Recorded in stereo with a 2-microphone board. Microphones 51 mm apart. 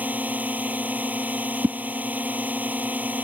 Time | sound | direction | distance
0.0 | a drone | 30° right (ahead or behind) | ?
1.6 | a whoosh | 70° right (ahead or behind) | ?